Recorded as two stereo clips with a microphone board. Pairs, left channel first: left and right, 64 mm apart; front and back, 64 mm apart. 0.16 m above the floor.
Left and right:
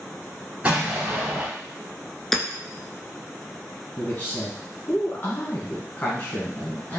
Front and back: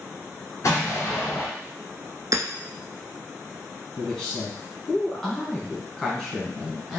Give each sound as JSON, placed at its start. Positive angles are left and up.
{"t": 0.6, "sound": "an explosion", "azimuth_deg": -30, "distance_m": 1.6}
{"t": 2.3, "sound": "hammering", "azimuth_deg": 175, "distance_m": 0.5}
{"t": 4.0, "sound": "a man speaking", "azimuth_deg": 85, "distance_m": 1.4}